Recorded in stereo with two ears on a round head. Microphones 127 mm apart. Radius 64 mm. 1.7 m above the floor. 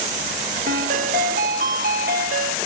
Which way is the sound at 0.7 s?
65° right (ahead or behind).